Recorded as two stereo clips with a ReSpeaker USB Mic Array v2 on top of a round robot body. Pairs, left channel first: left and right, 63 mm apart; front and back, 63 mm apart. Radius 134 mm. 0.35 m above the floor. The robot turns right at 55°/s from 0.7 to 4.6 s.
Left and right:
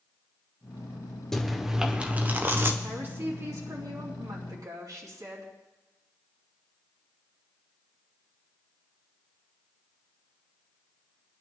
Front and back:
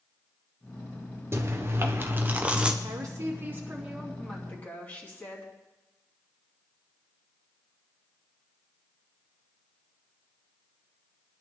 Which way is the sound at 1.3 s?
170° left.